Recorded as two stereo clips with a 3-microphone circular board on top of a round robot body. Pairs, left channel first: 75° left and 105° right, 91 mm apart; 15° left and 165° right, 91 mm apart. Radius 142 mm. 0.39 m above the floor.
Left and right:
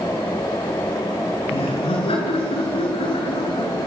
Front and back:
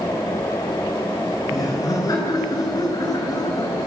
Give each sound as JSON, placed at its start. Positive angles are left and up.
{"t": 1.5, "sound": "laughter", "azimuth_deg": 65, "distance_m": 7.5}